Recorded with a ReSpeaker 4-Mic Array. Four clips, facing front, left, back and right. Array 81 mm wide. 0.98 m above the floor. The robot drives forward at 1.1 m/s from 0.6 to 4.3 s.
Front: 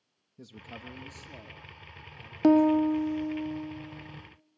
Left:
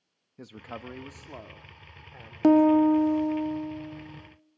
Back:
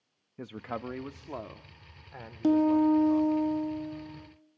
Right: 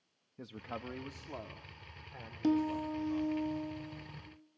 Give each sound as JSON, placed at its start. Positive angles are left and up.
{"t": 0.4, "sound": "a man speaking", "azimuth_deg": 170, "distance_m": 1.0}
{"t": 2.4, "sound": "a piano", "azimuth_deg": 55, "distance_m": 0.6}